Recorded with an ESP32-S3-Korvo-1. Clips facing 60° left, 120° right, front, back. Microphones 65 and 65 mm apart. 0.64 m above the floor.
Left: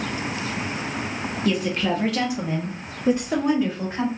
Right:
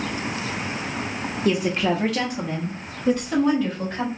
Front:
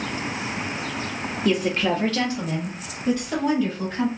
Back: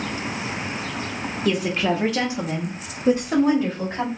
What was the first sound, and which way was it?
A woman speaking, 80° right.